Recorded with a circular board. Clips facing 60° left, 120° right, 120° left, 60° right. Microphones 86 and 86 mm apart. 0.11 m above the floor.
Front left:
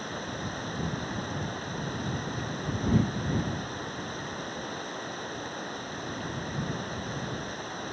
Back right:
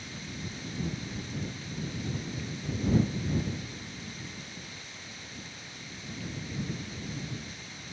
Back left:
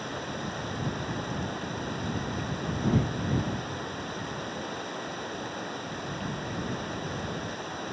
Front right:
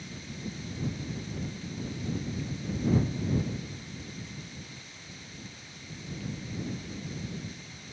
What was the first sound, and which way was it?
Running water, 95° left.